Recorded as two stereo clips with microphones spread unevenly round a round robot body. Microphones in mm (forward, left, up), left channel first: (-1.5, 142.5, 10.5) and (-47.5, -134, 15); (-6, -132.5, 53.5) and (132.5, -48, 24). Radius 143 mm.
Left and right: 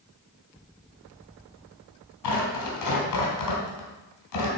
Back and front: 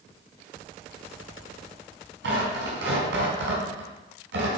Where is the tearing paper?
50° left, 3 m.